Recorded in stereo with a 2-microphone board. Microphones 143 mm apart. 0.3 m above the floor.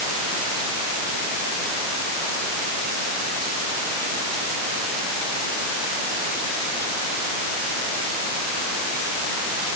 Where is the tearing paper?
No tearing paper in this recording.